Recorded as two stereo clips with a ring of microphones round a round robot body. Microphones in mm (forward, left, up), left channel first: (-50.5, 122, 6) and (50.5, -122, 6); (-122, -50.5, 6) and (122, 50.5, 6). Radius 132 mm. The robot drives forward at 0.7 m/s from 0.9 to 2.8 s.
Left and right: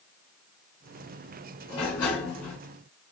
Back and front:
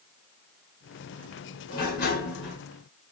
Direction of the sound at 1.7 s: 140° left.